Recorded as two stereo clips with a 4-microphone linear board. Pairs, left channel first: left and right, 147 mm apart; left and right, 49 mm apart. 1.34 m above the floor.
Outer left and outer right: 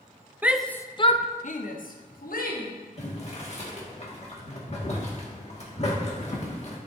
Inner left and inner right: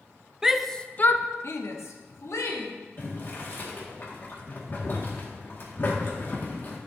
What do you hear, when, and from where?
0.4 s a shout: 10° right (ahead or behind), 0.6 m; by 2.7 s 75° left (ahead or behind), 1.6 m
3.0 s boiling: 50° left (ahead or behind), 1.8 m